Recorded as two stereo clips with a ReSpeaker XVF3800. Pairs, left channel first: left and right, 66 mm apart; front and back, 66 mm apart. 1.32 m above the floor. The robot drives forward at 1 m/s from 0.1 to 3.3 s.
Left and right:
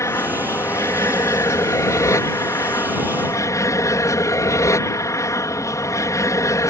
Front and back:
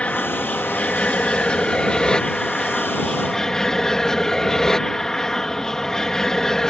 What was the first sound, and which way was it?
An aircraft, 70° left.